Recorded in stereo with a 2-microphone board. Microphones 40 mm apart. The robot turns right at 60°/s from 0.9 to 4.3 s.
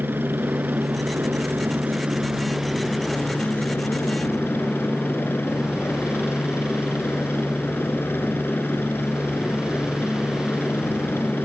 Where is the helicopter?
105° right; by 11.5 s 100° left.